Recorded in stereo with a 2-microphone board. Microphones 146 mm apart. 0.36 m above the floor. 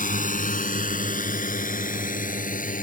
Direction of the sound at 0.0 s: 70° left (ahead or behind).